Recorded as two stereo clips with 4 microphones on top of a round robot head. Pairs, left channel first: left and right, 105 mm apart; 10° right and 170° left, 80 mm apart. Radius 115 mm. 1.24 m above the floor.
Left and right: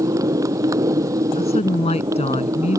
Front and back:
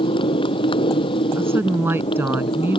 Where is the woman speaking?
110° left.